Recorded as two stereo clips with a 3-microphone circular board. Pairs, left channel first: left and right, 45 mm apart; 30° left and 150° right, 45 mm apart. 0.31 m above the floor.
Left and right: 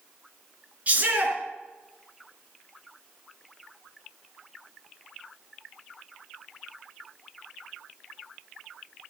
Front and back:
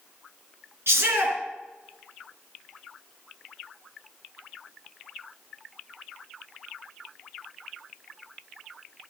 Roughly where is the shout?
Behind right.